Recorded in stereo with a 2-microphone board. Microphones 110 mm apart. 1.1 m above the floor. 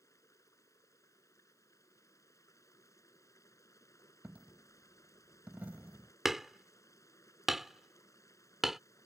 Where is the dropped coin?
15° right (ahead or behind).